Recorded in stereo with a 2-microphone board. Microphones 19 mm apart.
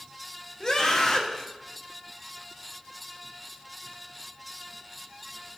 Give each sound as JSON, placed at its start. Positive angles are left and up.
{"t": 0.6, "sound": "a scream", "side_deg": 35, "distance_m": 1.5}